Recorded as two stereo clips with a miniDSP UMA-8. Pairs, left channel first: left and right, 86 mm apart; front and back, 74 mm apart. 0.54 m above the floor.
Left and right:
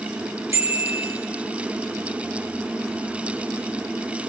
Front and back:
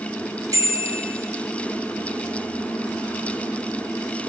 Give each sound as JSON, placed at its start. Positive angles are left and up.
{"t": 0.5, "sound": "a bicycle bell", "azimuth_deg": -145, "distance_m": 7.0}